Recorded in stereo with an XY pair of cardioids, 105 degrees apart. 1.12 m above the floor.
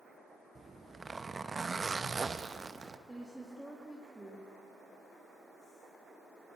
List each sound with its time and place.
0.6 s a zipper: 25° right, 0.7 m
3.1 s a woman speaking: 5° right, 2.5 m